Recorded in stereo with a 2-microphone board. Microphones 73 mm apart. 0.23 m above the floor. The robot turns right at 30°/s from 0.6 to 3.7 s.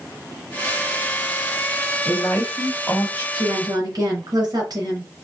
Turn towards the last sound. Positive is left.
turn(degrees=-60)  # may be behind; listen again after turning